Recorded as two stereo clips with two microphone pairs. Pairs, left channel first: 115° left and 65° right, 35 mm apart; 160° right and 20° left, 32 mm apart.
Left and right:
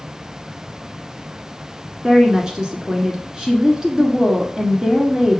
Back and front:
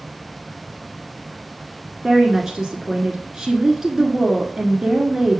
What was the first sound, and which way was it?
A woman speaking, 40° right.